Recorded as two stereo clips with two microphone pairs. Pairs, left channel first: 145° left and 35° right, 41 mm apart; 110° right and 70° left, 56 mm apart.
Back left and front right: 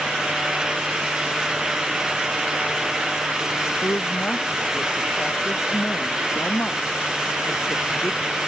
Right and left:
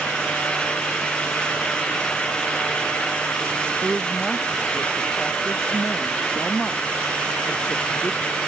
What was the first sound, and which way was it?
A woman speaking, 155° left.